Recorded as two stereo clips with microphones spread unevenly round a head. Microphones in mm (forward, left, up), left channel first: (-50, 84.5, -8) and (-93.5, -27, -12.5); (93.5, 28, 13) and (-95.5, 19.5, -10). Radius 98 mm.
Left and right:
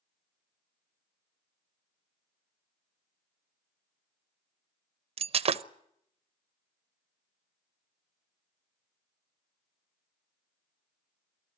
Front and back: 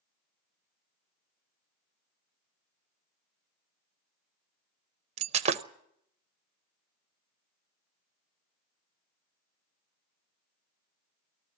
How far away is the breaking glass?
About 0.6 m.